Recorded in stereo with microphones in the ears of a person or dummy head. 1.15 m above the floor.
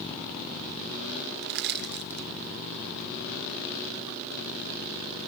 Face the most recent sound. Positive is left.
turn(degrees=-55)  # may be behind; listen again after turning